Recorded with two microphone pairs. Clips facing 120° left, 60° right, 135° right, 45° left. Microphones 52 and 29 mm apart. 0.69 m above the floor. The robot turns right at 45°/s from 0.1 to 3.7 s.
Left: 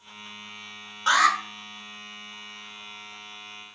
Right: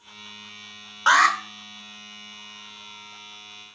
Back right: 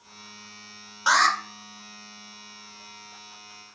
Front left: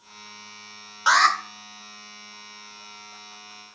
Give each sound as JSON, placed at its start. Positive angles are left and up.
{"t": 1.1, "sound": "an alarm", "azimuth_deg": -40, "distance_m": 1.4}